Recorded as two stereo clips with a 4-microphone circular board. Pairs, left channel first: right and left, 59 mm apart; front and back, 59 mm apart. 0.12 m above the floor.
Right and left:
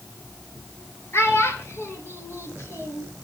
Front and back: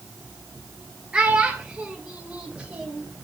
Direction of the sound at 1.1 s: 110° right.